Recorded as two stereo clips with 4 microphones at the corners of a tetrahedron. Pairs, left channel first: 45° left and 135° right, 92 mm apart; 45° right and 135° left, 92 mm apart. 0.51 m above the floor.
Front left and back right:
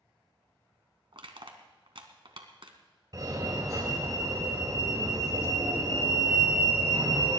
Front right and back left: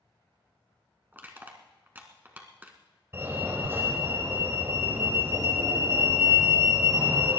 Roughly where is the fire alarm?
Behind.